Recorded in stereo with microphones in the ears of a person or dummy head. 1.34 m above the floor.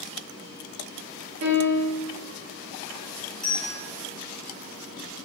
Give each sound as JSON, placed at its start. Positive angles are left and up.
{"t": 1.4, "sound": "a piano", "side_deg": -65, "distance_m": 1.2}
{"t": 3.4, "sound": "a bell", "side_deg": 5, "distance_m": 0.6}